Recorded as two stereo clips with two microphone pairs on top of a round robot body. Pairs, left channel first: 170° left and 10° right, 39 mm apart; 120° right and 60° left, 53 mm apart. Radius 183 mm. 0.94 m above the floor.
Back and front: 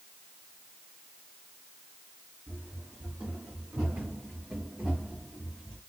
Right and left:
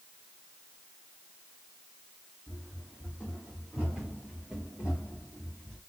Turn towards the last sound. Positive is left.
turn(degrees=165)